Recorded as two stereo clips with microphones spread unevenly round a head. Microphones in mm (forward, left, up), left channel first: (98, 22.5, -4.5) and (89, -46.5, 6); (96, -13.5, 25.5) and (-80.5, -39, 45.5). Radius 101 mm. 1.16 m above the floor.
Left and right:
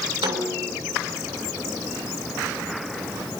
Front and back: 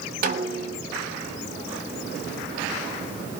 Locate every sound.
0.2 s a snare drum: 130° right, 3 m